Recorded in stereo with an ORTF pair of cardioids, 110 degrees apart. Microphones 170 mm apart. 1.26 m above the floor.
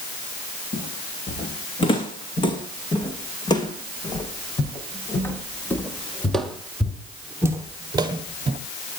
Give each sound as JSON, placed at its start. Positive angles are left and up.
{"t": 0.7, "sound": "footsteps", "azimuth_deg": 35, "distance_m": 4.5}